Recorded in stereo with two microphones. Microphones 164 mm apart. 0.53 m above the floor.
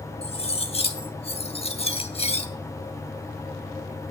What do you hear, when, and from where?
0.2 s cutlery clinking: 35° left (ahead or behind), 0.9 m